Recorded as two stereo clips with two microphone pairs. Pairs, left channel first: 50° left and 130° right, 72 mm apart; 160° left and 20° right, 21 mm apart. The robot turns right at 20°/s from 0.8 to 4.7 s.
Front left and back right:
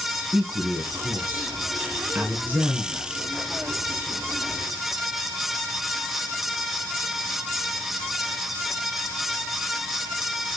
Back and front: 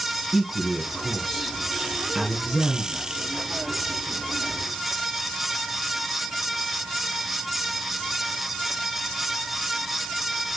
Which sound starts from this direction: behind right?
A man speaking, at 0.3 s.